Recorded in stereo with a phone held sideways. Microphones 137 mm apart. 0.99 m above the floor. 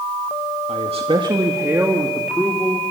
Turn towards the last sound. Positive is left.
turn(degrees=5)  # may be behind; listen again after turning